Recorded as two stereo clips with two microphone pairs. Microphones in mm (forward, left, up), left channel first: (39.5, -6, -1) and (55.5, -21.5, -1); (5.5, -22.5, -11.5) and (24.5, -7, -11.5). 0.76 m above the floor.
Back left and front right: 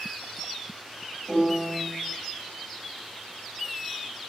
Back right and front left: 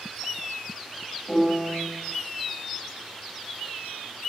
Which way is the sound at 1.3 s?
60° right.